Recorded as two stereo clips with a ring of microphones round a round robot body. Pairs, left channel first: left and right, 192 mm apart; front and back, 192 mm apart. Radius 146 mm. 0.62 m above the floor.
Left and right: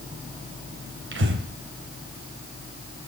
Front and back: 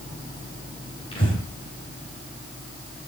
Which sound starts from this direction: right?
Breathing, at 1.1 s.